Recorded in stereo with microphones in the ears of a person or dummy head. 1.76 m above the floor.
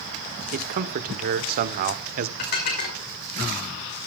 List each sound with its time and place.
0.5 s a man speaking: 50° right (ahead or behind), 1.2 m
2.4 s dishes clattering: 55° left (ahead or behind), 5 m